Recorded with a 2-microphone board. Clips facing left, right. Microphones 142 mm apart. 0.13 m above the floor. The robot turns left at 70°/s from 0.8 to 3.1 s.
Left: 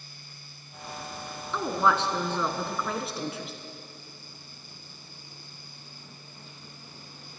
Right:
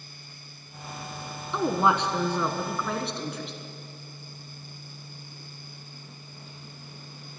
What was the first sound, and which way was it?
A woman speaking, 20° right (ahead or behind).